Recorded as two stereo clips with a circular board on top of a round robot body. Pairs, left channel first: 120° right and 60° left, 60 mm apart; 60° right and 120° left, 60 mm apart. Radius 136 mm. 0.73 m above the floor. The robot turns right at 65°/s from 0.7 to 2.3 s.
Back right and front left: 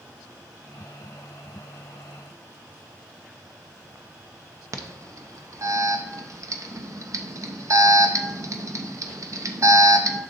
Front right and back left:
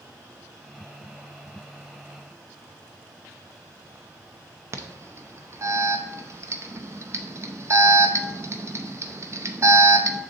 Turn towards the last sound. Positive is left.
turn(degrees=85)